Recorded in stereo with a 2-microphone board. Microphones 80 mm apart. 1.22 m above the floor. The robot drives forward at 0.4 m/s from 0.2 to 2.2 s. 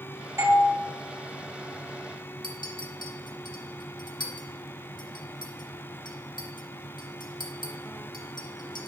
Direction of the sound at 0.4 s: 35° right (ahead or behind).